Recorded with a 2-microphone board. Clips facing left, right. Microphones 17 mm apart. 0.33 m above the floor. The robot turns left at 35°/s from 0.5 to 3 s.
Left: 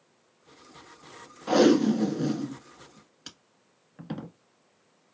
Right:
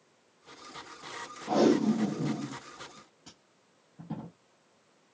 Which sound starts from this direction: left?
Tape being pulled, at 1.5 s.